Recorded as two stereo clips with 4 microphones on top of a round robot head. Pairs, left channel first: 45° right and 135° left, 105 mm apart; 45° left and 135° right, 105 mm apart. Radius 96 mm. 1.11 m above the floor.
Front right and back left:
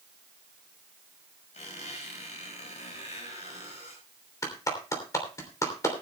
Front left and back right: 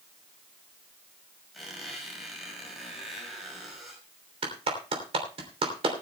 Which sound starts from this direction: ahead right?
A squeak, at 1.5 s.